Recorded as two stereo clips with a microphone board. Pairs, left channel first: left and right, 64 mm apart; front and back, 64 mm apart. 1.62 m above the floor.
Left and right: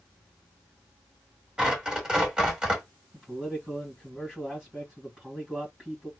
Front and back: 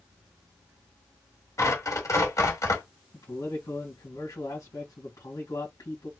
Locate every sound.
1.6 s tearing paper: 15° right, 2.5 m
3.1 s a man speaking: 10° right, 2 m